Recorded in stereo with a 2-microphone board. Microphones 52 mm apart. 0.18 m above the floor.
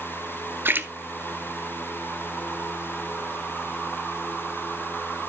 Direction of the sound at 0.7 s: 45° right (ahead or behind).